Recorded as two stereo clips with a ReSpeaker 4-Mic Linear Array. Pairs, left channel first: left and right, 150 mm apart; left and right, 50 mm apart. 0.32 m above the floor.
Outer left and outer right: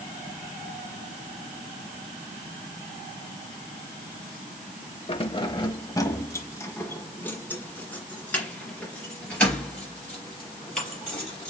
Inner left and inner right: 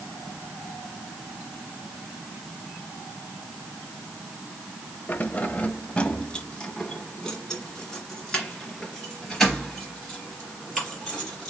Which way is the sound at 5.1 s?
35° left (ahead or behind).